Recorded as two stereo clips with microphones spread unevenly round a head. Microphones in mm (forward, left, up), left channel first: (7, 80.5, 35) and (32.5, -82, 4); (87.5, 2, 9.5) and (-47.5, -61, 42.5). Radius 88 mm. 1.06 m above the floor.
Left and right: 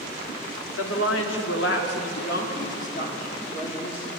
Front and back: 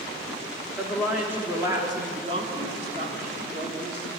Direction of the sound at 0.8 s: 115° left.